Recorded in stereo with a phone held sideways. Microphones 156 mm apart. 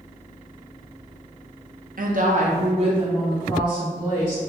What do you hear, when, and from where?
2.0 s a woman speaking: 65° right (ahead or behind), 0.6 m; by 4.4 s 25° right (ahead or behind), 2.5 m